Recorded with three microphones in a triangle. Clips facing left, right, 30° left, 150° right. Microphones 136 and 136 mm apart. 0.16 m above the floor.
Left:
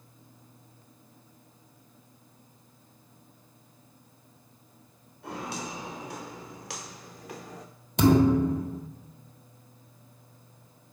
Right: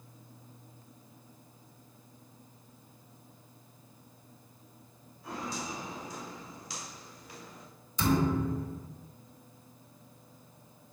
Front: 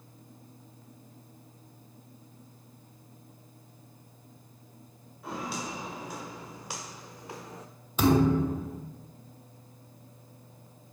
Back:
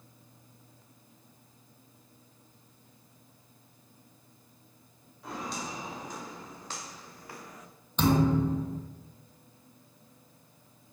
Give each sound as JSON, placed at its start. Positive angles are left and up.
{"t": 5.2, "sound": "footsteps", "azimuth_deg": 115, "distance_m": 3.0}
{"t": 8.0, "sound": "a thud", "azimuth_deg": 110, "distance_m": 1.0}